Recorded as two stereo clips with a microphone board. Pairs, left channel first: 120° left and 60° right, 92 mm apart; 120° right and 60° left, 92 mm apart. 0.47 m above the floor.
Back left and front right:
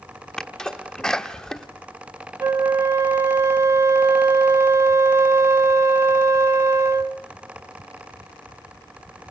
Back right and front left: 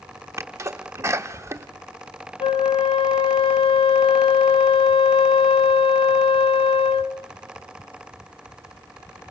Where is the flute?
115° right, 0.7 m.